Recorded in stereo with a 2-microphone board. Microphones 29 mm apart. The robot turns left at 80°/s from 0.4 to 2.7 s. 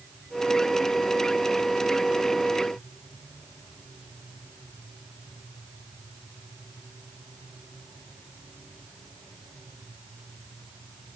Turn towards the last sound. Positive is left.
No sound to turn to.